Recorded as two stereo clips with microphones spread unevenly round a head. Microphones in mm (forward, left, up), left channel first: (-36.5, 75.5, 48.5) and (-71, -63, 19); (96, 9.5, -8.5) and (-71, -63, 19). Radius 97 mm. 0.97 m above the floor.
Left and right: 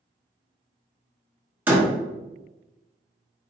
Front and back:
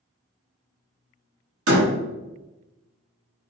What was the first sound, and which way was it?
A door slam, straight behind.